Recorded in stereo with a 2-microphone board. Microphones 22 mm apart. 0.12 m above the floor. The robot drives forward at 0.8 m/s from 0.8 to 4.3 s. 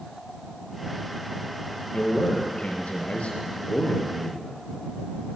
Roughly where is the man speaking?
Left.